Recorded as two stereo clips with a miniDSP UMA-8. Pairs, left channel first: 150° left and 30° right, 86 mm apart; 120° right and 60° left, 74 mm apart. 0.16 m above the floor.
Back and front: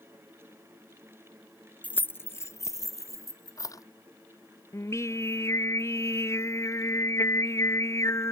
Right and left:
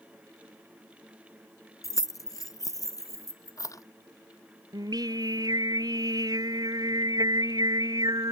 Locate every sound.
1.8 s keys jangling: 140° right; by 3.8 s 160° right
4.7 s singing: 95° left